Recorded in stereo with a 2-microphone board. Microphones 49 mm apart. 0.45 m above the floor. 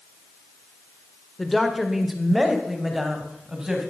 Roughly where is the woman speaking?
Centre.